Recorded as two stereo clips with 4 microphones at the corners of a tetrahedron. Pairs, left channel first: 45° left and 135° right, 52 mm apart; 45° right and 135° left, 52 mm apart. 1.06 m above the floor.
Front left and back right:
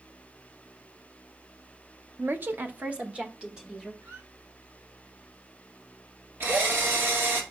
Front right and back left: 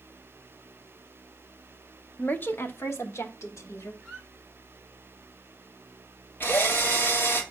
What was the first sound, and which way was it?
A woman speaking, 100° right.